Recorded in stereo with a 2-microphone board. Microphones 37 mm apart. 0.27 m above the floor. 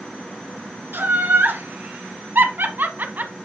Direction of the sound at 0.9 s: 70° right (ahead or behind).